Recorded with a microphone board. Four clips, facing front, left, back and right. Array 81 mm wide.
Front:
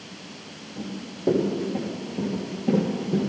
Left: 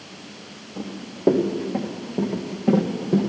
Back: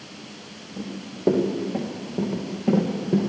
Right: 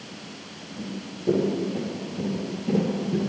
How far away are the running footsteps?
About 4 m.